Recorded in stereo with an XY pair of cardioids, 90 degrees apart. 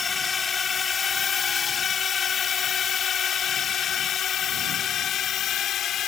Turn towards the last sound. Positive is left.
turn(degrees=75)